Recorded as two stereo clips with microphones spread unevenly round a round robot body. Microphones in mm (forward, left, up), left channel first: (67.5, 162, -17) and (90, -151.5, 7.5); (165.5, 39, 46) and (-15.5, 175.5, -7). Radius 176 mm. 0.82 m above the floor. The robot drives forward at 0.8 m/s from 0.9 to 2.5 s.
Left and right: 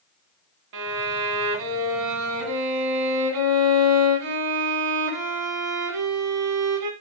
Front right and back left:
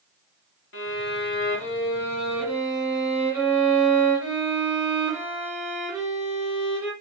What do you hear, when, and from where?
0.7 s a violin: 70° right, 1.3 m; by 6.9 s 130° right, 1.5 m